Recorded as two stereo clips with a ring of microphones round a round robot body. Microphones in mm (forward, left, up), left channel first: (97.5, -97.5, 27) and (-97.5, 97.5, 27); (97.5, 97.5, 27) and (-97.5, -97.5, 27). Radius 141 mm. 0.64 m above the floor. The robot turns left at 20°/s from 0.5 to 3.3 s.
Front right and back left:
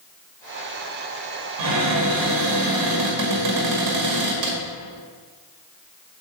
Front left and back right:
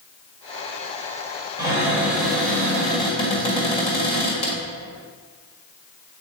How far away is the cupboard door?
About 1.9 m.